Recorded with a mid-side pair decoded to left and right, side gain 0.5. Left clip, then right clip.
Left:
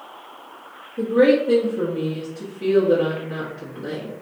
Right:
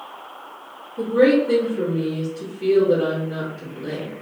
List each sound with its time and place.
1.0 s a woman speaking: 30° left, 1.0 m